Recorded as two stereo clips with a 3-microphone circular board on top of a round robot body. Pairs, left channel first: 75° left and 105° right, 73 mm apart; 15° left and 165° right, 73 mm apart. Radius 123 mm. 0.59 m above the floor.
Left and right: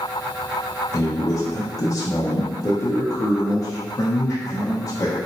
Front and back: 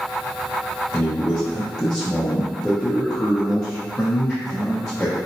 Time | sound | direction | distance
0.9 | a man speaking | 90° left | 1.1 m